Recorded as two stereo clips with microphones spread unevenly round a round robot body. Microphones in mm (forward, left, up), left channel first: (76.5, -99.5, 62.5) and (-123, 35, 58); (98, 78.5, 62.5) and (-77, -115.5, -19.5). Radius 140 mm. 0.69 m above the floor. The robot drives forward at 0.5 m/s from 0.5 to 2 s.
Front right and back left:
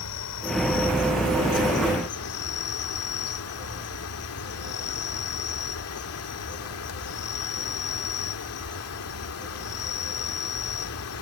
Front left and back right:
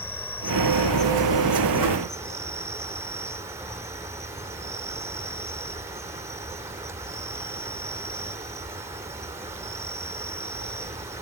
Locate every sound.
0.0 s an insect: 35° right; by 11.2 s 55° right